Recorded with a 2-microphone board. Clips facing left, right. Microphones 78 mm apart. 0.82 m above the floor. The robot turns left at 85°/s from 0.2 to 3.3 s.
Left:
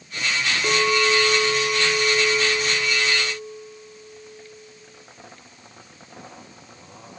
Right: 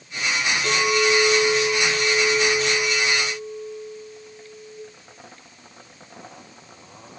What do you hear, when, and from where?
0.6 s a clink: 155° left, 7 m; by 4.8 s 70° right, 7 m